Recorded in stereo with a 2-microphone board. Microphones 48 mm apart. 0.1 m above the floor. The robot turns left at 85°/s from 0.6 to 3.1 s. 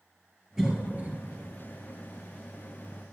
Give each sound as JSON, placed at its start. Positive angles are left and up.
{"t": 0.6, "sound": "a cough", "side_deg": -10, "distance_m": 2.0}